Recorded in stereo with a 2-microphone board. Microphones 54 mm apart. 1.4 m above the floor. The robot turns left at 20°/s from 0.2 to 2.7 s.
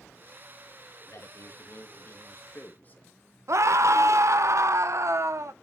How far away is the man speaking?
About 2.5 m.